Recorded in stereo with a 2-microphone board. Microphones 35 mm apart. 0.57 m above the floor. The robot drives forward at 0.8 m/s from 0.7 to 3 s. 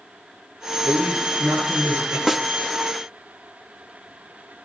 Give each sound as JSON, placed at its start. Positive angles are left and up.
{"t": 0.8, "sound": "a man speaking", "side_deg": -80, "distance_m": 7.5}
{"t": 2.3, "sound": "a snare drum", "side_deg": -5, "distance_m": 0.6}